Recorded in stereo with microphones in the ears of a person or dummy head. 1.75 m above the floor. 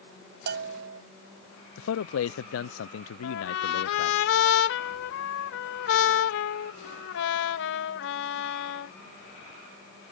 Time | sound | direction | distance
0.5 | a bell | 60° right (ahead or behind) | ?
1.8 | a man speaking | 85° left | ?
3.2 | a trumpet | 70° left (ahead or behind) | ?